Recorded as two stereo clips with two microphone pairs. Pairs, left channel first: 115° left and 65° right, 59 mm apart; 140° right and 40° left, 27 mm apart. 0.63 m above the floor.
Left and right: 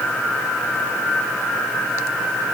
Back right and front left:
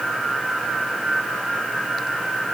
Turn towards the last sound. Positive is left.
No sound to turn to.